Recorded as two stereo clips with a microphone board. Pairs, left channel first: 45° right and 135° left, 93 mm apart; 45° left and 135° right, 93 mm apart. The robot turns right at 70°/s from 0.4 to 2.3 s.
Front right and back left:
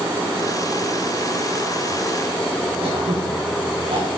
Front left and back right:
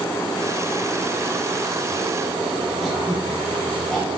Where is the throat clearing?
130° left, 5 m.